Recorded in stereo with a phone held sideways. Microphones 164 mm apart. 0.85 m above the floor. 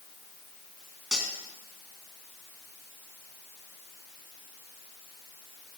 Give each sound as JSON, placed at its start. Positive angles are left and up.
{"t": 1.1, "sound": "cutlery clinking", "side_deg": -5, "distance_m": 4.0}